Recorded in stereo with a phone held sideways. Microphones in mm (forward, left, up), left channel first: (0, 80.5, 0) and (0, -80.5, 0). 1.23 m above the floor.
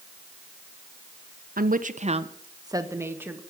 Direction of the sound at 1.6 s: 65° right (ahead or behind).